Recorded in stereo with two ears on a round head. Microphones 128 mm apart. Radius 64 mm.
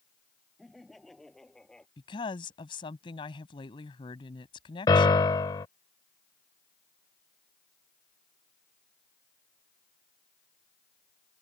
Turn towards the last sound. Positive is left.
turn(degrees=30)  # may be behind; listen again after turning